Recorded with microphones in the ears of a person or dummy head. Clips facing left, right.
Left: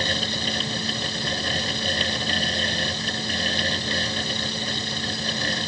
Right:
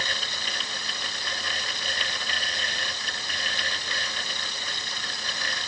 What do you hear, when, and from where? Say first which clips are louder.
0.0 s a fan: left 9 dB; 30° left (ahead or behind)